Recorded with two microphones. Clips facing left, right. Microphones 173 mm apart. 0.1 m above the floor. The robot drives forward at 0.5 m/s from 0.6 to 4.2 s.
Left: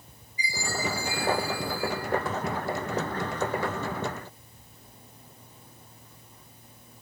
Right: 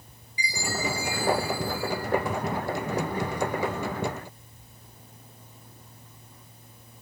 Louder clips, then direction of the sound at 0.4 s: Right 1 dB; 85° right.